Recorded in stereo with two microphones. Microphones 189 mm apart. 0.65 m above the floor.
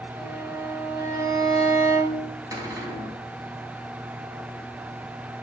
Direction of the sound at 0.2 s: 20° right (ahead or behind).